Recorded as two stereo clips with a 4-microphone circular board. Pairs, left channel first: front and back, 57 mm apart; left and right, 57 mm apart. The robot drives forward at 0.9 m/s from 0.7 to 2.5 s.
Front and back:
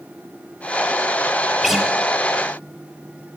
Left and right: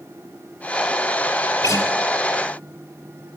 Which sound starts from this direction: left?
A guitar, at 1.6 s.